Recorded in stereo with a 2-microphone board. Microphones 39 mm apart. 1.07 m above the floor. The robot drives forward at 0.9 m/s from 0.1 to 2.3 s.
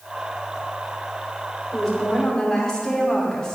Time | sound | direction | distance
1.7 | a woman speaking | 15° left (ahead or behind) | 3 m